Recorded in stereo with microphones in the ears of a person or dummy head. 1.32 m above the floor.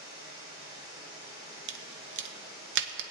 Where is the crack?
55° right (ahead or behind), 0.7 m.